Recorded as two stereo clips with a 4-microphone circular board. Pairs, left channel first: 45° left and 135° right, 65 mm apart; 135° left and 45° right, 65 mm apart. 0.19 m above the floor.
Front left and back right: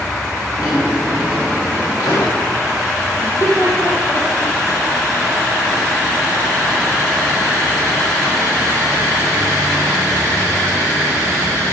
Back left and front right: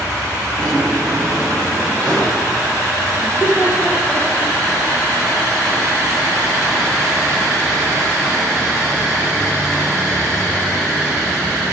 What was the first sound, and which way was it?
A drawer, 55° left.